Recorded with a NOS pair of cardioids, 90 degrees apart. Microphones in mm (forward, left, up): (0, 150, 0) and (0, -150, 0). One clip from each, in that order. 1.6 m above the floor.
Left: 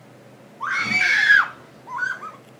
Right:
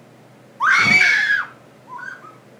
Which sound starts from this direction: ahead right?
A scream, at 0.6 s.